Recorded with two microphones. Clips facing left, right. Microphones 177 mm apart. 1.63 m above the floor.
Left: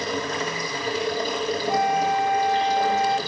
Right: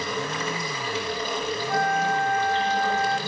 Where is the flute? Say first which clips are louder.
Left 2 dB; 15° left (ahead or behind), 1.3 m.